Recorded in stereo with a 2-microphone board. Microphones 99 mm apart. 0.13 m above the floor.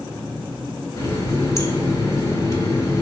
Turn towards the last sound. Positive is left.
turn(degrees=30)  # may be behind; listen again after turning